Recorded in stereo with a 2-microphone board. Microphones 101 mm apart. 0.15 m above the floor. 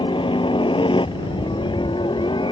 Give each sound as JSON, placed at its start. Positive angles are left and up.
{"t": 0.0, "sound": "a helicopter", "side_deg": 55}